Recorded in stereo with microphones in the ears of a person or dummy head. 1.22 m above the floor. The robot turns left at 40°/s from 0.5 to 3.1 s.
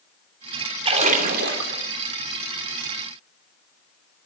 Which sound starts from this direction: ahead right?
A splash, at 0.8 s.